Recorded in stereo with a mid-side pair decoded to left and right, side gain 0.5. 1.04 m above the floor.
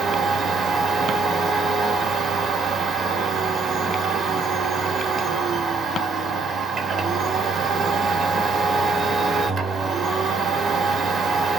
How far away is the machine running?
About 0.9 m.